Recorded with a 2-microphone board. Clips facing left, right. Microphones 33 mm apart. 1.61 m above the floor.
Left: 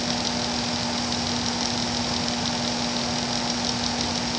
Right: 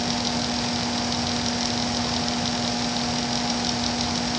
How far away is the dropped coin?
No dropped coin in this recording.